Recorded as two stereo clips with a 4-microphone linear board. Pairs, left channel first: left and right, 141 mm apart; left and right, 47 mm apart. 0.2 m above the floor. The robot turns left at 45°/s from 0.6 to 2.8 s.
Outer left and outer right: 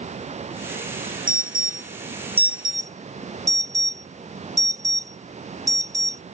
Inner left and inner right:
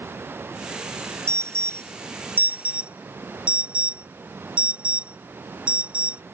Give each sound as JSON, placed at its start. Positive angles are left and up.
{"t": 1.3, "sound": "an alarm", "side_deg": -80}